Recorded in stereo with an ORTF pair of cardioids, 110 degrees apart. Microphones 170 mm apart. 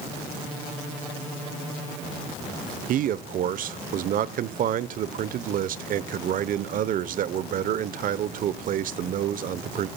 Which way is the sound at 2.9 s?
55° right.